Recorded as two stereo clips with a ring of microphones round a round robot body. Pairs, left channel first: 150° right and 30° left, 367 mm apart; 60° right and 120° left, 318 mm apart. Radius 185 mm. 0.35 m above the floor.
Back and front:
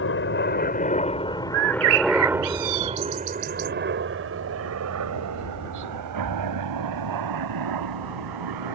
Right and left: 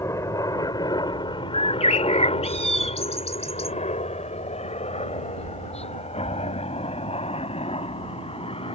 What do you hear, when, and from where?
0.0 s a helicopter: 135° right; by 8.8 s 10° left
1.5 s a bird: 10° left